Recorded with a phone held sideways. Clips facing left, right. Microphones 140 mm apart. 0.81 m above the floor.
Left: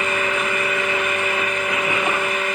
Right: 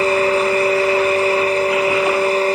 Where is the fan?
40° right (ahead or behind).